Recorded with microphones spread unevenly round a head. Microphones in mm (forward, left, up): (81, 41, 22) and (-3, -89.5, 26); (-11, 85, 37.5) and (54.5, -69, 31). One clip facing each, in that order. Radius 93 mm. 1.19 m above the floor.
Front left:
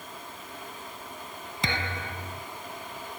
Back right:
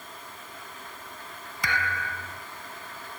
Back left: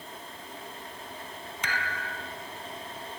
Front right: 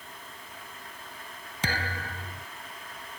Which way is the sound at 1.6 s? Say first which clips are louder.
Back right 1 dB, front right 3 dB; 10° right.